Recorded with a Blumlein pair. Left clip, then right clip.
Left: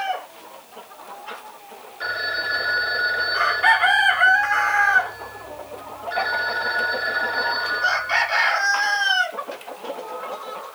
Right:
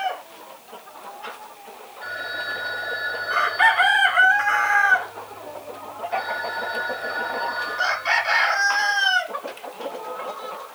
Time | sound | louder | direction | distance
2.0 | a phone ringing | left 5 dB | 35° left | 3 m